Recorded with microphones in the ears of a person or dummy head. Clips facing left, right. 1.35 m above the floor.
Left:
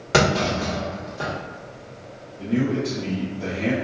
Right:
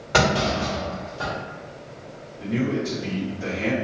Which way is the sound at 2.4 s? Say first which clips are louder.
Left 2 dB; 40° left (ahead or behind).